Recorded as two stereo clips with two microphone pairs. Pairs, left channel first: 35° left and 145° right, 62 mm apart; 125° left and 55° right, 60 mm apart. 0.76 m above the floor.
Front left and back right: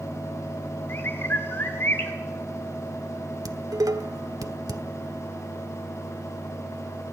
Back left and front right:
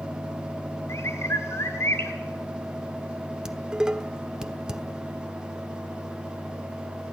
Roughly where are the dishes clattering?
Behind right.